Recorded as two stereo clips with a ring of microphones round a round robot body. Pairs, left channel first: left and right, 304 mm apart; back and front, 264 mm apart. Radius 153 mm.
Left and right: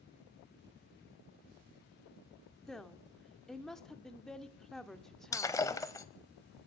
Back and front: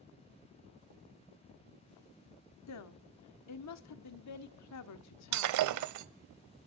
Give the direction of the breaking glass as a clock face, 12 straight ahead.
12 o'clock.